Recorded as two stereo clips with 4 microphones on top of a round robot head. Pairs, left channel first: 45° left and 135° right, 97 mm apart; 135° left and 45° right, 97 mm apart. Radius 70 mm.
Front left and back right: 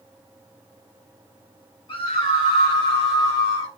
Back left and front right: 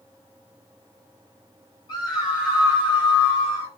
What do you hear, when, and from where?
1.9 s a scream: 85° left, 4.5 m; by 3.8 s 100° left, 4 m